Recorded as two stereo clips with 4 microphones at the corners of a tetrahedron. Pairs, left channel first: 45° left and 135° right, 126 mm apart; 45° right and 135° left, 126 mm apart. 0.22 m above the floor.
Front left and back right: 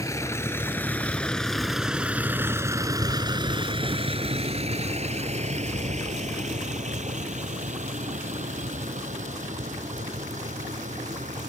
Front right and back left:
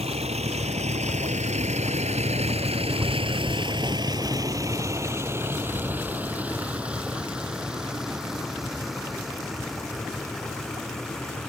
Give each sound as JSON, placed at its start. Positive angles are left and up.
{"t": 0.0, "sound": "a vehicle", "azimuth_deg": 110}